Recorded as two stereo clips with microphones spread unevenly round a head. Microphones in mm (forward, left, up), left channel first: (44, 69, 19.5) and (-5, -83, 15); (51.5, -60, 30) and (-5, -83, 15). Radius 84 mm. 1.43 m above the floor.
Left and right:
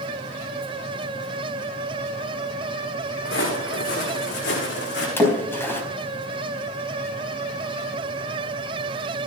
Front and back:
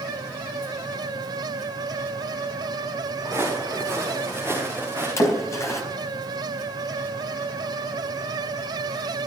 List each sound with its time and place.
3.2 s footsteps: 95° left, 7.5 m; by 5.1 s 100° left, 6 m
5.2 s a splash: 5° right, 4 m